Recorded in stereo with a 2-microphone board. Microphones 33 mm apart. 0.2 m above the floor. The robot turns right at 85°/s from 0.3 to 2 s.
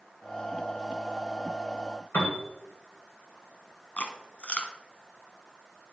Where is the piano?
65° left (ahead or behind), 2.5 m.